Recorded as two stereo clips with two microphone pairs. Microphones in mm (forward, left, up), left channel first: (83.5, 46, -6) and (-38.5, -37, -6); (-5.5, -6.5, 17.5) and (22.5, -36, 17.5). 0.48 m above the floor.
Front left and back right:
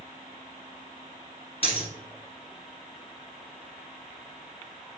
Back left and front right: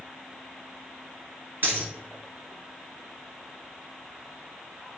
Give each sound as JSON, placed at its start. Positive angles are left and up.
{"t": 1.6, "sound": "a dropped coin", "azimuth_deg": -15, "distance_m": 1.5}